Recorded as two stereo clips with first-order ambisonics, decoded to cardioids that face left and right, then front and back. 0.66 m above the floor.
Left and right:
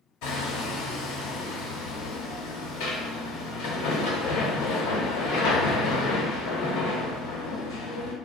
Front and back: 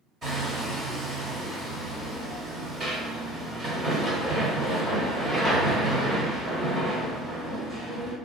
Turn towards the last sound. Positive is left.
turn(degrees=110)